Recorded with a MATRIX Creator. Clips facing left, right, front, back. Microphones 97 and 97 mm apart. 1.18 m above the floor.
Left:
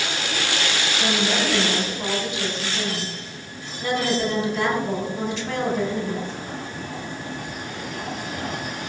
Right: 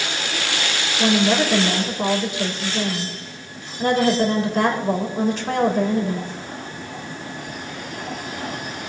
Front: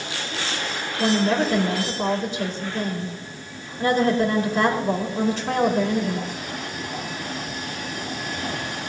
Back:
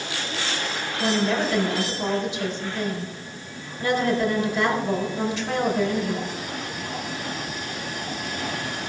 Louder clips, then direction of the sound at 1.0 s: Right 7 dB, front 3 dB; 45° right.